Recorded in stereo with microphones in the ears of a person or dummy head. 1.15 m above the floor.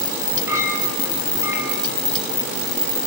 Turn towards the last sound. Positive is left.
turn(degrees=-20)  # may be behind; listen again after turning